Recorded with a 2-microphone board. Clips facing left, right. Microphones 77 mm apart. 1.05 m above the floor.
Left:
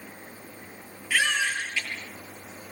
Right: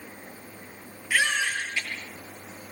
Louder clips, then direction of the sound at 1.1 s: Even; 15° right (ahead or behind).